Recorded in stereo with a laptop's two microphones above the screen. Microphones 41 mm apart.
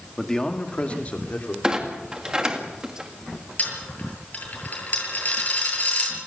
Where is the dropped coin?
40° left (ahead or behind), 8 m.